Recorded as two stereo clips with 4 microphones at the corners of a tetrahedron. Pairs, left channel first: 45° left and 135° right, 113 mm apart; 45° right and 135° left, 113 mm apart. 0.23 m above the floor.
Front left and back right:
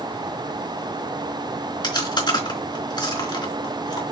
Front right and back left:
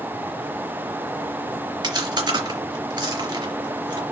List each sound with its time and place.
1.8 s chewing: 90° left, 3.5 m